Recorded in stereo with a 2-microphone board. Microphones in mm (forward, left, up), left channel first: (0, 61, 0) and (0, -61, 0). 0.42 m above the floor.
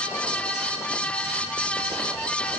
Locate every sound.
Only background noise.